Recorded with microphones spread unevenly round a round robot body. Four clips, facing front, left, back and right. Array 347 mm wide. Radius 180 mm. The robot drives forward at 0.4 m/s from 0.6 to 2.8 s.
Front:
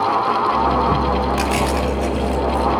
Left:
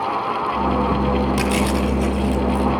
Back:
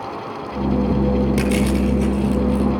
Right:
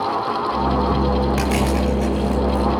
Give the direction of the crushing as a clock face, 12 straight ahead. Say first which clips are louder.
Even, even; 6 o'clock.